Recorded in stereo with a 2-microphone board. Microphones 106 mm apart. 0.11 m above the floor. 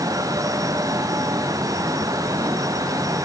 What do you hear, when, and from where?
Only background noise.